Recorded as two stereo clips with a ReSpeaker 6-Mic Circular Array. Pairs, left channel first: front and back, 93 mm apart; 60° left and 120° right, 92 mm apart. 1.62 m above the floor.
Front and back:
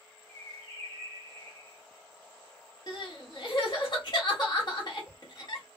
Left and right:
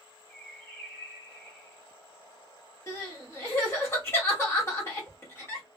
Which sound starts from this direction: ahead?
Crying, at 2.9 s.